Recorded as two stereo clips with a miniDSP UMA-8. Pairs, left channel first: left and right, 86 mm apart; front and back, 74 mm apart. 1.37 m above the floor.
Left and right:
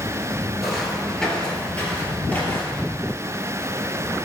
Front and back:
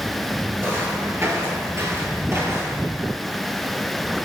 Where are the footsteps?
175° right, 1.5 m; by 2.9 s 150° left, 2 m.